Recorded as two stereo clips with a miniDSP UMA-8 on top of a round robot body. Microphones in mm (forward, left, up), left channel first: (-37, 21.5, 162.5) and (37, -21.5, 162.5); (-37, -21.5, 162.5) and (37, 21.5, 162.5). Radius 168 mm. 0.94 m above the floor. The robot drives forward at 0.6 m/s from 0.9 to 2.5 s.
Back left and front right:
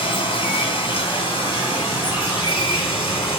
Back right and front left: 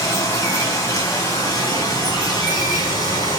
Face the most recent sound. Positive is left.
turn(degrees=165)